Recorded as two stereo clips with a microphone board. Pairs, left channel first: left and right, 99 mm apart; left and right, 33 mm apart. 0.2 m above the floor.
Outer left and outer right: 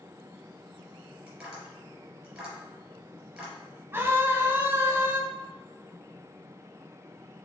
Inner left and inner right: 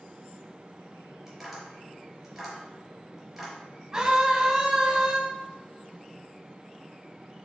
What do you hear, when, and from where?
1.3 s tapping: 5° right (ahead or behind), 3.5 m
3.9 s a scream: 25° right (ahead or behind), 1.1 m